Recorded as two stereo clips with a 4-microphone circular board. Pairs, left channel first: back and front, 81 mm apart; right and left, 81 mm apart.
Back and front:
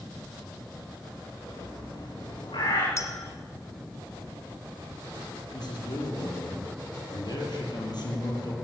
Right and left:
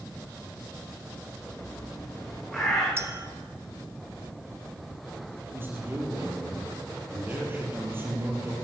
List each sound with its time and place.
1.5 s a bird: 175° right, 8.5 m
3.0 s a clink: 135° left, 1.3 m
5.5 s a man speaking: 150° left, 5.5 m